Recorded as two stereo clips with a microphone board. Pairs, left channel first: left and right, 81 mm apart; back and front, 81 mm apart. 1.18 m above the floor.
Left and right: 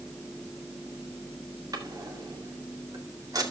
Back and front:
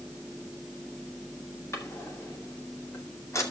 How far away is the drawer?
About 2 m.